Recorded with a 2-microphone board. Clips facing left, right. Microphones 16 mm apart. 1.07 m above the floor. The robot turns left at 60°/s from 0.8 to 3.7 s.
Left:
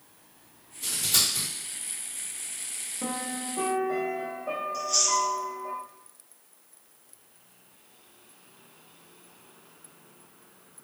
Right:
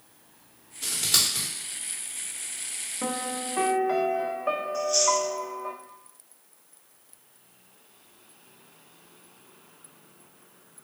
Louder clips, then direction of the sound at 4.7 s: Right 1 dB; 35° left (ahead or behind).